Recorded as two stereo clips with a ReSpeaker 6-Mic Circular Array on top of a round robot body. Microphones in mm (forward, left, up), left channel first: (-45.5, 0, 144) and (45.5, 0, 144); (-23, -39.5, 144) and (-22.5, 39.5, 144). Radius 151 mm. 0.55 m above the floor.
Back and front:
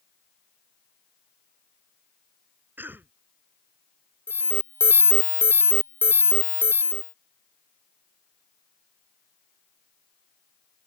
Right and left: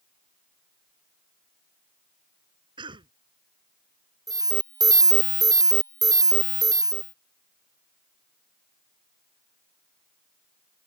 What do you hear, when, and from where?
2.8 s a cough: 70° left
4.3 s an alarm: 115° left